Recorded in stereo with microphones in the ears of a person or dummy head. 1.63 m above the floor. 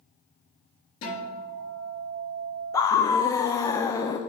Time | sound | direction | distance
1.0 | a guitar | 50° left (ahead or behind) | 3 m
2.7 | a scream | 20° left (ahead or behind) | 0.5 m